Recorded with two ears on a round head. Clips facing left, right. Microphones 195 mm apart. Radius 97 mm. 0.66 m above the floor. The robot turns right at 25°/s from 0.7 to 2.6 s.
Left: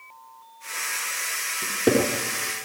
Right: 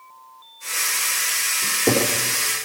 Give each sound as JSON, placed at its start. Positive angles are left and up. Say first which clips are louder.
{"t": 1.6, "sound": "a cupboard door", "louder": "even", "side_deg": 20, "distance_m": 4.5}